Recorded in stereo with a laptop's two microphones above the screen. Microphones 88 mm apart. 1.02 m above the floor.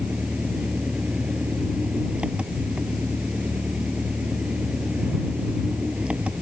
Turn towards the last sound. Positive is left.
turn(degrees=-15)  # may be behind; listen again after turning